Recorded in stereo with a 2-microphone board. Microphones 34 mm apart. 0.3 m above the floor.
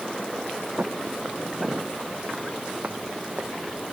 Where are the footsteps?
40° right (ahead or behind); by 3.5 s 60° right (ahead or behind).